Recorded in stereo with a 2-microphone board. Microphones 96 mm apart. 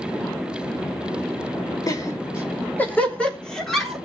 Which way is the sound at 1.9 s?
40° left (ahead or behind).